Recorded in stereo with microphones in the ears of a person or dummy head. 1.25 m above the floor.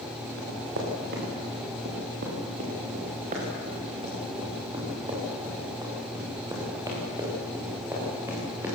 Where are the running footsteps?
60° right (ahead or behind), 7.5 m; by 8.8 s 10° right (ahead or behind), 10 m.